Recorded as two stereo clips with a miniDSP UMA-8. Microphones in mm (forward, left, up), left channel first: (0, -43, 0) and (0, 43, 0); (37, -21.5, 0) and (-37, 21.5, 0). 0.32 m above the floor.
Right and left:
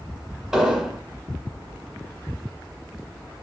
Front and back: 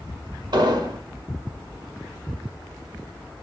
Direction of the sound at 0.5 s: 170° left.